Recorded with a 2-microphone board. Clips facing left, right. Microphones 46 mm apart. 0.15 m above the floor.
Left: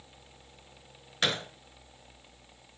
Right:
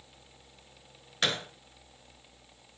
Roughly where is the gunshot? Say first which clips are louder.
Even; centre.